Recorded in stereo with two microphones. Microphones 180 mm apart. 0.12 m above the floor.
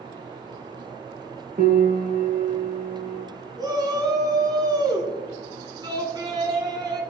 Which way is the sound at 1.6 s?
50° right (ahead or behind).